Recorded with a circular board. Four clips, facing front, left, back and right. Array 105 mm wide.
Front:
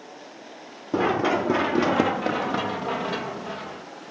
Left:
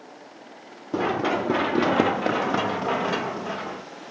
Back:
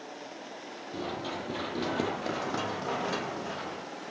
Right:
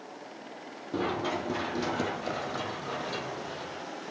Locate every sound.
0.9 s running footsteps: 30° left, 1.4 m; by 3.8 s 85° left, 2.5 m